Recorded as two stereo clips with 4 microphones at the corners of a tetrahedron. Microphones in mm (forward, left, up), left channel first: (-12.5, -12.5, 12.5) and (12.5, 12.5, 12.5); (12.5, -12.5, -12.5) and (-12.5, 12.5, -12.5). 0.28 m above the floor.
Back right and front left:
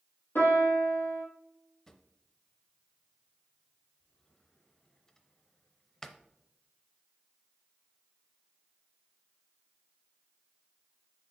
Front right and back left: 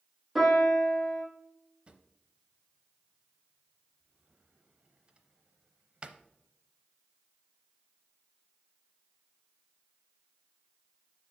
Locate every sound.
0.3 s a piano: 140° right, 3.5 m
1.9 s a drawer: 165° left, 0.6 m